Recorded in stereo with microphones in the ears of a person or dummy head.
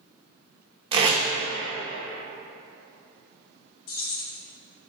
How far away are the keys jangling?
About 1.0 m.